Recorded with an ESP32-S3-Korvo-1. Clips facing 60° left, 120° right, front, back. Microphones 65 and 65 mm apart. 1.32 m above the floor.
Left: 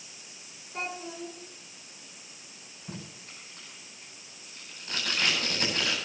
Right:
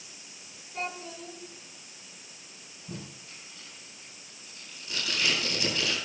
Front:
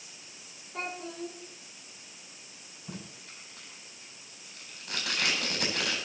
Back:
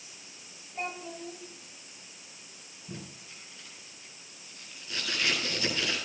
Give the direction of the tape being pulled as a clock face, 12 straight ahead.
11 o'clock.